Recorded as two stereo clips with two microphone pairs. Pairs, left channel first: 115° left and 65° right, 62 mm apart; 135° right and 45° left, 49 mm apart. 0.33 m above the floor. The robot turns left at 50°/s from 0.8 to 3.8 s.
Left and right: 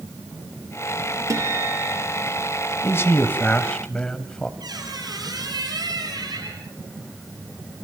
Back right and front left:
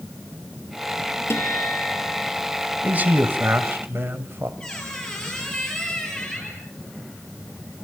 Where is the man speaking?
90° left, 1.9 m; by 4.5 s 40° left, 1.9 m.